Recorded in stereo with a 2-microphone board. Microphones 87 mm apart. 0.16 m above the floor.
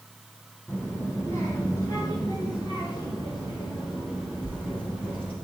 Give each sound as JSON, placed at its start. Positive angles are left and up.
{"t": 0.7, "sound": "a child speaking", "side_deg": 25, "distance_m": 1.6}